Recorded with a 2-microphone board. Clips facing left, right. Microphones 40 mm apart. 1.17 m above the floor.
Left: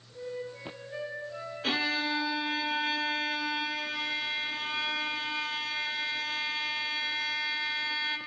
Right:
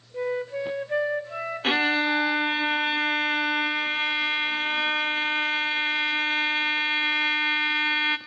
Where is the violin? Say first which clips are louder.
Right 7 dB; 40° right (ahead or behind), 0.7 m.